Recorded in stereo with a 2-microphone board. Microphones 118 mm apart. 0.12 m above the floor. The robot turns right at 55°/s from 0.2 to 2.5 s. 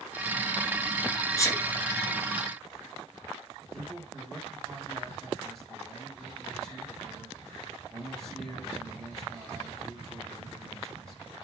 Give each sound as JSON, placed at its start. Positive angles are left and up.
{"t": 1.4, "sound": "a sneeze", "side_deg": 30, "distance_m": 1.3}
{"t": 3.7, "sound": "a man speaking", "side_deg": 5, "distance_m": 4.5}